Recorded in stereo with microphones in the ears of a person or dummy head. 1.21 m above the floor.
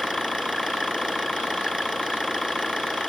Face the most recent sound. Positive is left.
turn(degrees=5)  # may be behind; listen again after turning